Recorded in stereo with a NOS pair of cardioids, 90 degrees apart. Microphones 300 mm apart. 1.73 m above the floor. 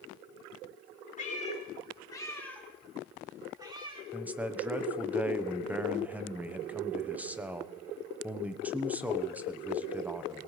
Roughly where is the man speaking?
Ahead.